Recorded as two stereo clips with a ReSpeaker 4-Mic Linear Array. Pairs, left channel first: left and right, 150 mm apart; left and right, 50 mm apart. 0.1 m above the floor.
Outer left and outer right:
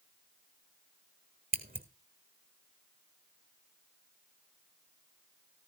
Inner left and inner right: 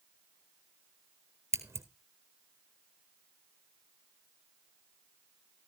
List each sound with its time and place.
1.5 s scissors: 75° right (ahead or behind), 1.1 m